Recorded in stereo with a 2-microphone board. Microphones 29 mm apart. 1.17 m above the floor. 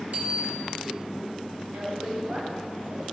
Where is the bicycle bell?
55° right (ahead or behind), 4.5 m.